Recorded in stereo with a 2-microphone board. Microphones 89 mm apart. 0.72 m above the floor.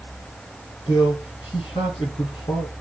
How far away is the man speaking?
About 7.5 m.